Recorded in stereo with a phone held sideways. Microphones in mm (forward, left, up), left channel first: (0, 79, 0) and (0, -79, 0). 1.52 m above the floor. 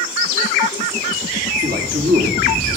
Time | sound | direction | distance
1.6 | a man speaking | 75° right (ahead or behind) | 2.5 m